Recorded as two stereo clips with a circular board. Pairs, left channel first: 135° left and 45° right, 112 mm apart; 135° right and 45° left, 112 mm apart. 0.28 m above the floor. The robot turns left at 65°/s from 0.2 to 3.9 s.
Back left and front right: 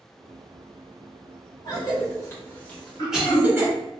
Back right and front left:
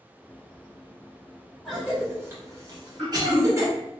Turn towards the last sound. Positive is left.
turn(degrees=95)